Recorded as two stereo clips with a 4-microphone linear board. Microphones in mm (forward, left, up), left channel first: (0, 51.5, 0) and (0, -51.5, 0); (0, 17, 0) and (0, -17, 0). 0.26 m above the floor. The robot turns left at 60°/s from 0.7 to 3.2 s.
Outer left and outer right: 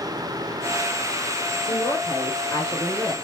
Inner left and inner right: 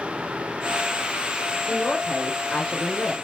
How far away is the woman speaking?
About 4 m.